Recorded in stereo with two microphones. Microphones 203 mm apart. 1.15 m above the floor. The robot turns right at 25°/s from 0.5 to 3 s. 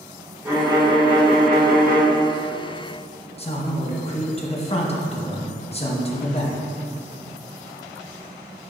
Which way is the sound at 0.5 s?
165° right.